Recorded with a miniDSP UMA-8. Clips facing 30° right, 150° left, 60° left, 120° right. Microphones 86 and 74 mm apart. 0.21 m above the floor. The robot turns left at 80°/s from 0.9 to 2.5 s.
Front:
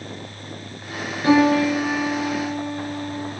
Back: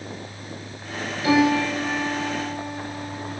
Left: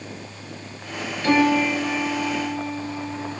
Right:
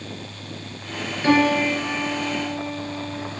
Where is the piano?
60° right, 2 m; by 3.3 s 160° right, 2 m.